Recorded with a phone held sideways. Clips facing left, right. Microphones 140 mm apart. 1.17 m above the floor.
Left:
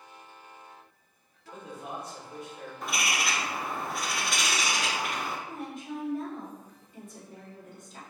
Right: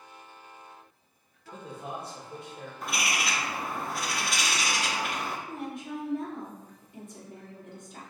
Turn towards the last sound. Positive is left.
turn(degrees=-50)  # may be behind; listen again after turning